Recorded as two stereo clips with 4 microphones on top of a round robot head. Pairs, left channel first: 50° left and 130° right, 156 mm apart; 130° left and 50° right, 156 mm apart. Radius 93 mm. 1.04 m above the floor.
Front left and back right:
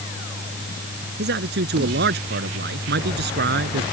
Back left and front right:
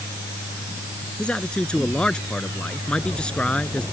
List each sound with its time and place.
1.2 s a man speaking: 150° right